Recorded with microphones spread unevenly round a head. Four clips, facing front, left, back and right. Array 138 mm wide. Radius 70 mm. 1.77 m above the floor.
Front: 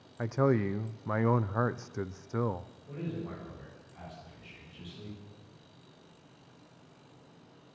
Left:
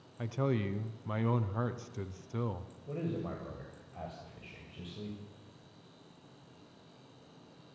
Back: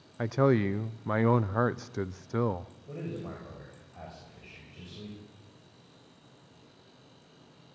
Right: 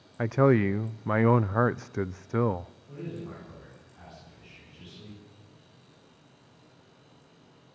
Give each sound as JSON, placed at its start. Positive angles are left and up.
{"t": 0.2, "sound": "a man speaking", "azimuth_deg": -105, "distance_m": 0.6}
{"t": 2.9, "sound": "a man speaking", "azimuth_deg": 110, "distance_m": 7.5}